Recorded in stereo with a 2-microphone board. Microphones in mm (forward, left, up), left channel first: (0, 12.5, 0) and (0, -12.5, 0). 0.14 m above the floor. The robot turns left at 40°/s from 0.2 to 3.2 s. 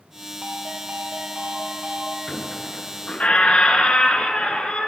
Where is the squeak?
130° left, 0.7 m; by 4.9 s 95° left, 0.7 m.